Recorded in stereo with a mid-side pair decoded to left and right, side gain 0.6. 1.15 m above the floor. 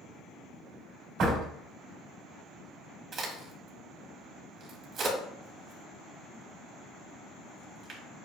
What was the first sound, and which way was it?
A door slam, 65° right.